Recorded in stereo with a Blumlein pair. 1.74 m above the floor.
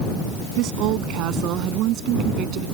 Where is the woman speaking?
40° right; by 2.6 s 35° right.